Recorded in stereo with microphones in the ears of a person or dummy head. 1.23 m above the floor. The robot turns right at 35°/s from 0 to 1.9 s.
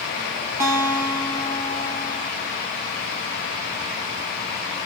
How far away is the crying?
No crying in this recording.